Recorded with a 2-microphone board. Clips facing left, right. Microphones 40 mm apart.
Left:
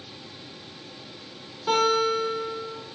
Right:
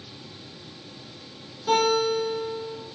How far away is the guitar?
About 2 m.